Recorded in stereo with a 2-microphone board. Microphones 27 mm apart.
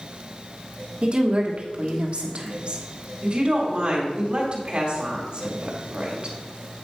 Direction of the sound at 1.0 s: 50° right (ahead or behind).